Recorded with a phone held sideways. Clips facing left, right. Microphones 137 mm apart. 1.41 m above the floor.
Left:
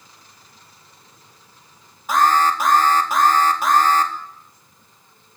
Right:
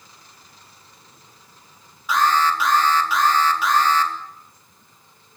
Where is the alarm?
45° left (ahead or behind), 3.5 m.